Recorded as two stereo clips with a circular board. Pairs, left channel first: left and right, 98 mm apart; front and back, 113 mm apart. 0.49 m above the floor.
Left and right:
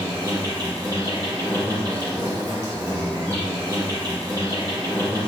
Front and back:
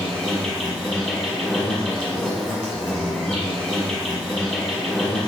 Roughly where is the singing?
No singing in this recording.